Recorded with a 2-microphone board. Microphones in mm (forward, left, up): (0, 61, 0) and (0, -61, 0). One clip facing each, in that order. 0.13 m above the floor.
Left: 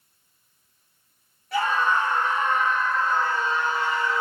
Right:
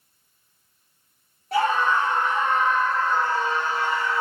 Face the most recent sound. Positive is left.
turn(degrees=-35)  # may be behind; listen again after turning